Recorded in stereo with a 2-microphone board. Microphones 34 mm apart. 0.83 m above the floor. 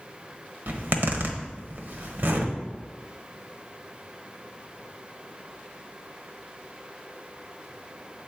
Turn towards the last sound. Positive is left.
turn(degrees=-65)  # may be behind; listen again after turning